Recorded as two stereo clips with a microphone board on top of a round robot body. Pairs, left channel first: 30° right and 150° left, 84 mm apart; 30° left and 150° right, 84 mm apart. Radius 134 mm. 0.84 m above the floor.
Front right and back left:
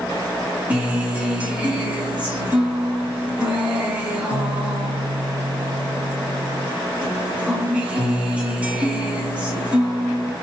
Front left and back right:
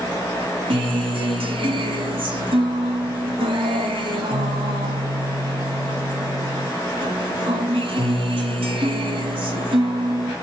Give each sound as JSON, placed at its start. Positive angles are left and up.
{"t": 0.7, "sound": "a guitar", "azimuth_deg": -135, "distance_m": 2.0}